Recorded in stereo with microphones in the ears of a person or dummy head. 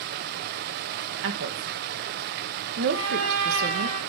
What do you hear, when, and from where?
0.0 s running water: 50° right (ahead or behind), 0.7 m
1.2 s a woman speaking: 65° right (ahead or behind), 1.4 m
2.9 s a trumpet: 75° right (ahead or behind), 4 m